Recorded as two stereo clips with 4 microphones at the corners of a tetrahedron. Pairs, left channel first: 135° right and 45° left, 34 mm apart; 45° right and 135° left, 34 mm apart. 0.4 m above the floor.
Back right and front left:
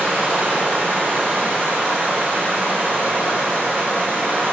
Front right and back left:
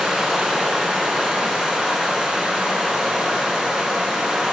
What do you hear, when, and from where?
0.0 s running water: 45° left, 3.5 m